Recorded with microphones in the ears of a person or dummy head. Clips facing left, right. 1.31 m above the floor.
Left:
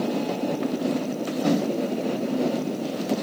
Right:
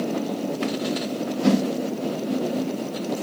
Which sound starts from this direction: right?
A whoosh, at 1.4 s.